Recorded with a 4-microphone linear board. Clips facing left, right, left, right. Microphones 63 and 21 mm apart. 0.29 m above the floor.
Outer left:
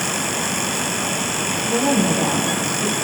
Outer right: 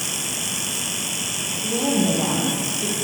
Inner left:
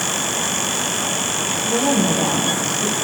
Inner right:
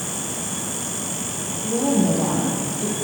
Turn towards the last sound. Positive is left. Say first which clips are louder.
# outer left 2 dB, inner left 1 dB
turn(degrees=5)  # may be behind; listen again after turning